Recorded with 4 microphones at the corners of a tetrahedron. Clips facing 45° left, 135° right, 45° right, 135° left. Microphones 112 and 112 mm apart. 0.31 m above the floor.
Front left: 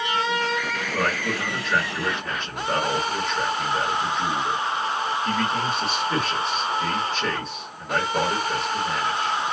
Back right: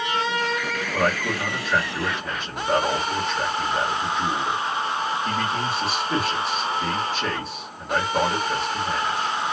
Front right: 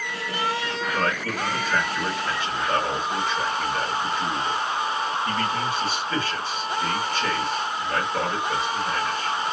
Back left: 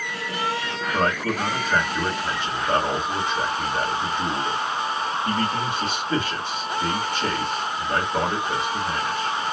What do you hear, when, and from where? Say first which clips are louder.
0.9 s a man speaking: back right 3 dB, back left 5 dB; 155° left, 1.2 m